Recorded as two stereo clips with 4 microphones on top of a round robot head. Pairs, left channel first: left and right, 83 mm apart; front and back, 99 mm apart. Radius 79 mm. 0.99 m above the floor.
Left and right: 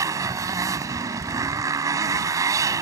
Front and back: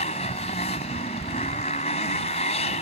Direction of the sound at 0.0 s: 40° right.